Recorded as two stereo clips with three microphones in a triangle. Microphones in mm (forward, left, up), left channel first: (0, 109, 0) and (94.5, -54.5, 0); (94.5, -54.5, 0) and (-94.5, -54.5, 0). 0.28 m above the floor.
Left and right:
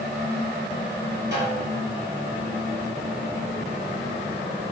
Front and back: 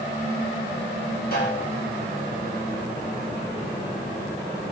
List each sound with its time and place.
1.3 s a snare drum: 35° right, 7 m